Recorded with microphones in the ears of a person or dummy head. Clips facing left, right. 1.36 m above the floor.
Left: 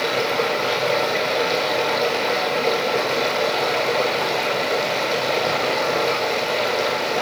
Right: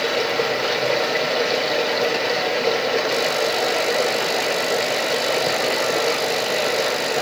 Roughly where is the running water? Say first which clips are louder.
Even; centre.